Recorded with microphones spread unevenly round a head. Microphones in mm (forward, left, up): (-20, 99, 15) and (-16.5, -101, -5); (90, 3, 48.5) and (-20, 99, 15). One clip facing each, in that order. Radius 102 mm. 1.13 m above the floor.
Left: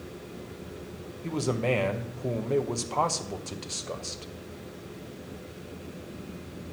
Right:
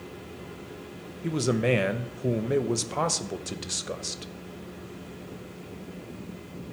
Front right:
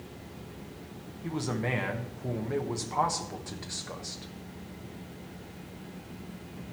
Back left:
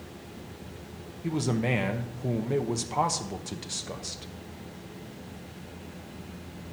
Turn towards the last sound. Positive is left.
turn(degrees=-155)